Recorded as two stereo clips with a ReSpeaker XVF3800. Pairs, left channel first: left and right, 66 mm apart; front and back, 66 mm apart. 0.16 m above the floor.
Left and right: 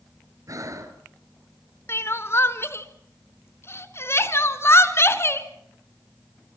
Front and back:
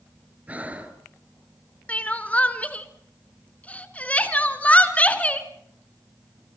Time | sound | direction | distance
0.5 | breathing | 115° right | 1.8 m
1.9 | crying | 60° left | 1.0 m